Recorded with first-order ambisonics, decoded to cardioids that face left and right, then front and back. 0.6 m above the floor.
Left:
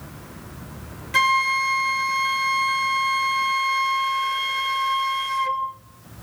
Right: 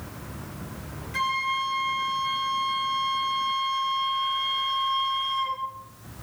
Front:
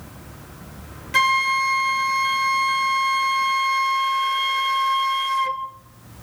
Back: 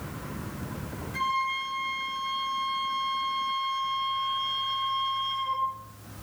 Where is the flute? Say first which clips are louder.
Left 7 dB, front 10 dB; 35° left, 1.9 m.